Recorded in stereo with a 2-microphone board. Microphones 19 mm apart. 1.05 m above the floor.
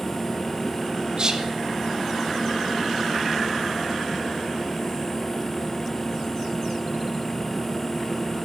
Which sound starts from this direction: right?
Whispering, at 1.2 s.